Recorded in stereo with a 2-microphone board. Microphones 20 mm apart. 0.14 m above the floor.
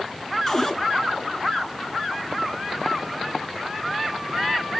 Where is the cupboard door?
15° left (ahead or behind), 1.4 m.